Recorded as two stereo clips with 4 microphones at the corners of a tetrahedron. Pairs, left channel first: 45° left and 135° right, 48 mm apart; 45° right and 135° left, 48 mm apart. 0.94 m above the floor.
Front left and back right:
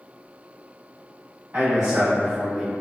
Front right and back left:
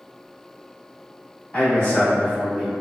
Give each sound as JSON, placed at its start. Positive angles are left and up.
{"t": 1.5, "sound": "a man speaking", "azimuth_deg": -90, "distance_m": 1.5}